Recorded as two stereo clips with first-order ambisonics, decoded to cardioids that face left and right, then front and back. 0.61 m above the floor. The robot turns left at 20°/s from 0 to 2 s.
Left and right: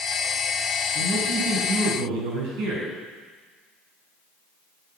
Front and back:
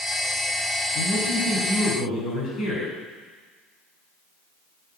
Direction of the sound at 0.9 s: 50° right.